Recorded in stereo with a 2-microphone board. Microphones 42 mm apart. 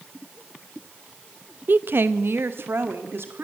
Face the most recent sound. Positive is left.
turn(degrees=-70)  # may be behind; listen again after turning